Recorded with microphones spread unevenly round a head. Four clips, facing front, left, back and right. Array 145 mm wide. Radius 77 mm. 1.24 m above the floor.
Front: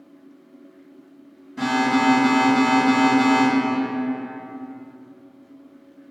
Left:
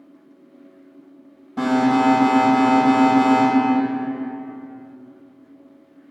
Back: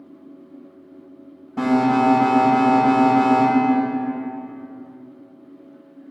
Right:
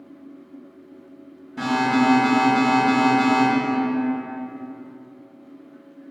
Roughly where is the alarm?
Behind left.